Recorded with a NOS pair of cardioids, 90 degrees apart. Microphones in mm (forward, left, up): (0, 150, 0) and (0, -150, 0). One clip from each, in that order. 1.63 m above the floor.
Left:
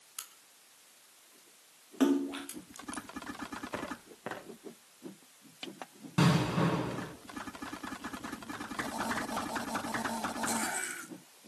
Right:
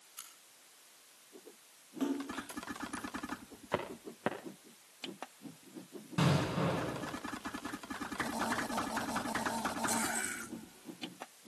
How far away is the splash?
About 2.5 m.